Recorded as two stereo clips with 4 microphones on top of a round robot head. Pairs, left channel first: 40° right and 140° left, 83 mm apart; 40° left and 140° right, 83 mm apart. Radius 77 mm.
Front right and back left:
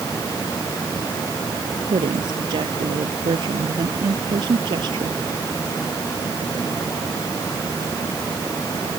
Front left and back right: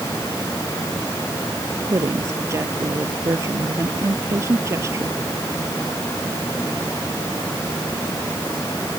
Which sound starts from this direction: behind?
A woman speaking, at 1.9 s.